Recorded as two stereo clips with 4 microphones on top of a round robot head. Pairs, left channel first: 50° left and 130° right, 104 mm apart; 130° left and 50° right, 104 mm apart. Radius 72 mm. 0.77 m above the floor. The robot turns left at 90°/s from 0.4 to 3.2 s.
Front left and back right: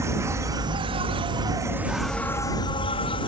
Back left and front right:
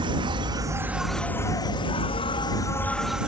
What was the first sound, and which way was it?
An insect, 75° right.